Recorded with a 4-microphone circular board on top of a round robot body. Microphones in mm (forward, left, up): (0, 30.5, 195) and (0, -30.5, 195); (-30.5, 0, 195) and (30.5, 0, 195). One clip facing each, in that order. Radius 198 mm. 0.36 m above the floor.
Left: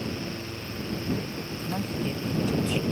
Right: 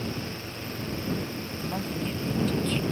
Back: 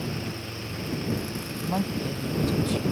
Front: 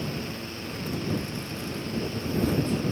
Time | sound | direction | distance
1.6 | a woman speaking | straight behind | ?